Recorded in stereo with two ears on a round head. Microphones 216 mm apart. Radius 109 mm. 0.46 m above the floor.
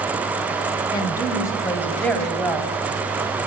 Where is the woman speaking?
20° left (ahead or behind), 2.5 m; by 2.8 s centre (ahead or behind), 3 m.